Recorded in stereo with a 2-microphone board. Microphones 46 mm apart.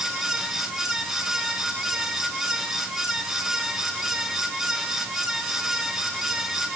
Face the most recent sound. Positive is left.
No sound to turn to.